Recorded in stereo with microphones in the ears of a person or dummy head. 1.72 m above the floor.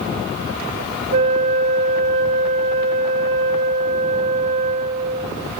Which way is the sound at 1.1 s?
30° right (ahead or behind).